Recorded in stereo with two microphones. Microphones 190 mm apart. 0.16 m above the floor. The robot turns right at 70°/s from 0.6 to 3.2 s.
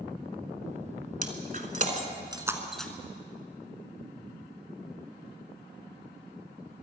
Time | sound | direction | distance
1.2 | breaking glass | 45° right (ahead or behind) | 1.2 m